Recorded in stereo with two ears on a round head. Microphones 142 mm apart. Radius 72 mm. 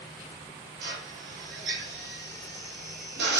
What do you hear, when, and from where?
0.8 s a drill: 65° right (ahead or behind), 5 m